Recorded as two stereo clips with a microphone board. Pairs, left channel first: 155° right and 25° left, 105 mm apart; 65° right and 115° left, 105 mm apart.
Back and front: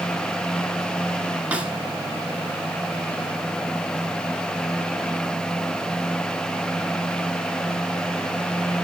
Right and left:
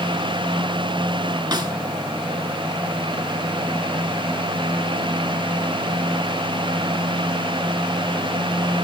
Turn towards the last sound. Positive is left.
turn(degrees=95)